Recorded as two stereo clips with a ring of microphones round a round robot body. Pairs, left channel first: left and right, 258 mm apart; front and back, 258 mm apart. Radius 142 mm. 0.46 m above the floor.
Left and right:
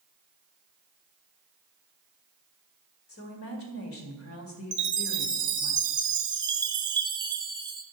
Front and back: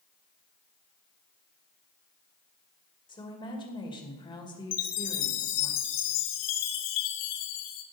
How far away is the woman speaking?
About 2 m.